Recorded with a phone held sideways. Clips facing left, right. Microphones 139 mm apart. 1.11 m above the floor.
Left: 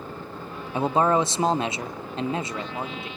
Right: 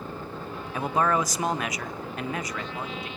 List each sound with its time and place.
0.7 s a man speaking: 25° left (ahead or behind), 0.5 m